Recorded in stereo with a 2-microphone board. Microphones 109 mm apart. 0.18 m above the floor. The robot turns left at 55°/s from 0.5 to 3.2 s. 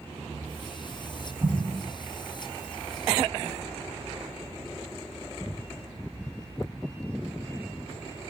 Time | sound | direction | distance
1.4 | an explosion | 30° right (ahead or behind) | 1.1 m